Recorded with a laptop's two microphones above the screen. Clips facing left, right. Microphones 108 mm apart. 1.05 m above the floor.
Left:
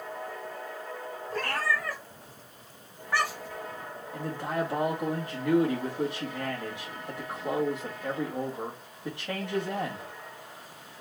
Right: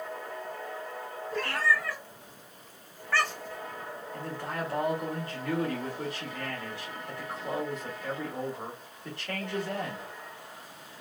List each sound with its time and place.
1.3 s a cat meowing: 45° left (ahead or behind), 2 m; by 3.6 s 10° right (ahead or behind), 0.7 m
4.1 s a man speaking: 15° left (ahead or behind), 1.8 m